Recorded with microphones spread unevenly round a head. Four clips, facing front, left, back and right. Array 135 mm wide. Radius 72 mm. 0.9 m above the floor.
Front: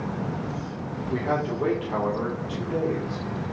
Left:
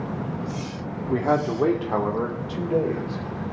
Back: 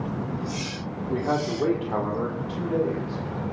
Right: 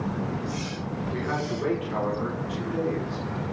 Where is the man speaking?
100° left, 2 m; by 3.4 s 105° left, 4.5 m.